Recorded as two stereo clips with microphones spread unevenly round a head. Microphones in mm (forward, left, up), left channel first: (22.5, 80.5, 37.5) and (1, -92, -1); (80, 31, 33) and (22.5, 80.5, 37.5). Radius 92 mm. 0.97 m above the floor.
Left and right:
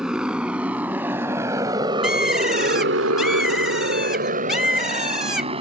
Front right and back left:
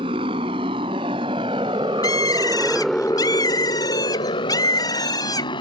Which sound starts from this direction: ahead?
A bird, at 2.0 s.